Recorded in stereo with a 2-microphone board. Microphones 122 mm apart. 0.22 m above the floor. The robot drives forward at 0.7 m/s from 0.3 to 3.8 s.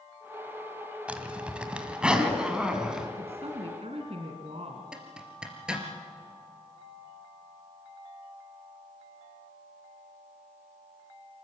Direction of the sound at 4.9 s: 10° right (ahead or behind).